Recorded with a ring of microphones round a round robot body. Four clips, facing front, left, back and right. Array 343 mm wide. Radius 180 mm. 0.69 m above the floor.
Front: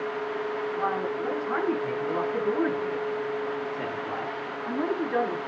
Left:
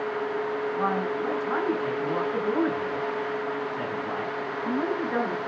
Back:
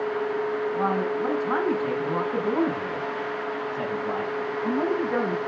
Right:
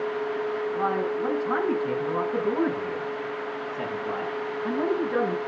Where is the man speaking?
175° right, 7 m; by 5.4 s 165° left, 8 m.